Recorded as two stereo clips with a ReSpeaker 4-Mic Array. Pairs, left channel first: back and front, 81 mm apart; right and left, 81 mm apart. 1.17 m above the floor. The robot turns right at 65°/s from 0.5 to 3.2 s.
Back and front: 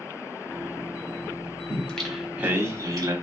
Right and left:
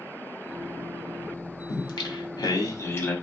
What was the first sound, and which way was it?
Singing, 120° right.